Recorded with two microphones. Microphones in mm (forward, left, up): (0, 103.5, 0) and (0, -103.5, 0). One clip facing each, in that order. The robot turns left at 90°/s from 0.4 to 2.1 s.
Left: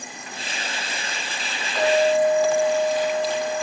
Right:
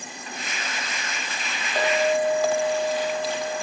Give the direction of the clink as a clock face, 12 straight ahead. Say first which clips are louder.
Left 4 dB; 2 o'clock.